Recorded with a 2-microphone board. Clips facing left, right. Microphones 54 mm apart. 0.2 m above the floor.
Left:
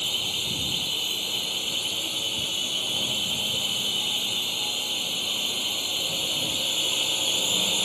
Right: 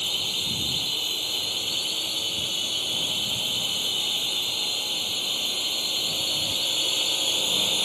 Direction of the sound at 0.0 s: 15° left (ahead or behind).